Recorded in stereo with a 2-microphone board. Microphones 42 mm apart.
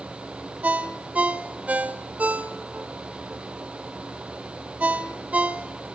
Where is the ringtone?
35° right (ahead or behind), 1.5 m.